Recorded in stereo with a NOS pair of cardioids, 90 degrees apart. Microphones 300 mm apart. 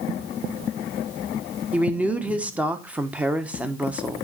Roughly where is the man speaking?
Ahead.